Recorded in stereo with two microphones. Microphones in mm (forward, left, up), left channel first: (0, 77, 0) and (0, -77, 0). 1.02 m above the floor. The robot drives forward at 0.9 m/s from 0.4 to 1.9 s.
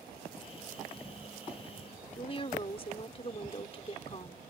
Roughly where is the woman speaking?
Left.